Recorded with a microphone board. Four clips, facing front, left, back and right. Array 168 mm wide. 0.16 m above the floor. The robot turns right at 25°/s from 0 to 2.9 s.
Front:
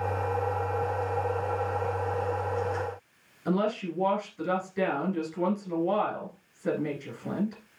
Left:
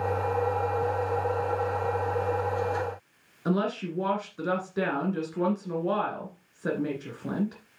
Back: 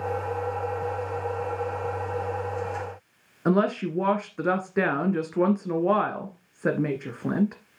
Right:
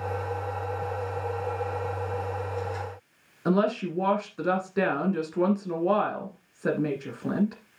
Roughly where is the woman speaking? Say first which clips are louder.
Right 3 dB, back 5 dB; behind.